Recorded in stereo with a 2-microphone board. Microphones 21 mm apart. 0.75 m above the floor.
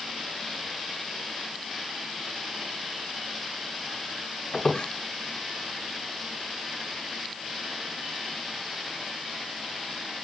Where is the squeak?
55° left (ahead or behind), 3 m.